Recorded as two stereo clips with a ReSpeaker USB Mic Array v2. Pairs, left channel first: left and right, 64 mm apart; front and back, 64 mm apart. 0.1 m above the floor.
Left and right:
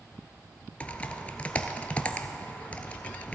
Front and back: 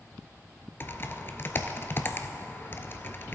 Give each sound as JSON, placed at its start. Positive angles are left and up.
{"t": 0.8, "sound": "typing on a keyboard", "azimuth_deg": 30, "distance_m": 0.6}